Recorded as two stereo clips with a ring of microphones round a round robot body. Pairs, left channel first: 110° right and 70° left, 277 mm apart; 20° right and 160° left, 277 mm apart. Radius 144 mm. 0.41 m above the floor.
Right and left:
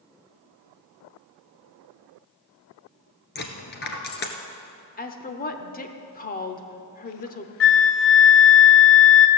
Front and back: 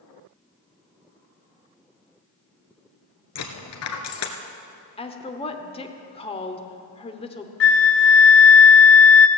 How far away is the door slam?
I don't hear a door slam.